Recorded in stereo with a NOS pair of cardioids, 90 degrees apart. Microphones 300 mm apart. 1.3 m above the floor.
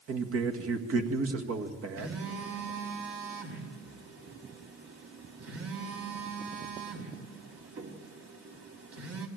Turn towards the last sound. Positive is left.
turn(degrees=-50)